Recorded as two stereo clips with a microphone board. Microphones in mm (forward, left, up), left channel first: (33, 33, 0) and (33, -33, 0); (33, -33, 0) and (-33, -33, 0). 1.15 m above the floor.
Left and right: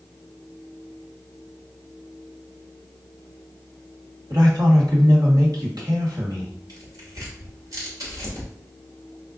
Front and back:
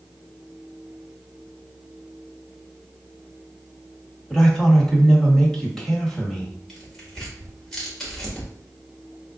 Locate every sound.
4.3 s a man speaking: 85° right, 1.8 m
6.7 s tearing paper: 85° right, 1.6 m